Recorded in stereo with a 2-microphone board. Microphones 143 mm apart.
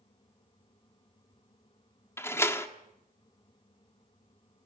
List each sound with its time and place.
2.2 s a door slam: 15° left (ahead or behind), 1.4 m